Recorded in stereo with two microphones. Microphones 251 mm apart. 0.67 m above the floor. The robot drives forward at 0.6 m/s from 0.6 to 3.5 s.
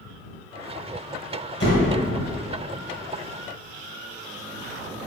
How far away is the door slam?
About 2 m.